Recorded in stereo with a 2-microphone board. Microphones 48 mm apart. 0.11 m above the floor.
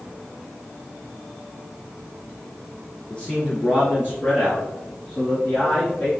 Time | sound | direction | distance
3.1 | a man speaking | 20° left (ahead or behind) | 1.7 m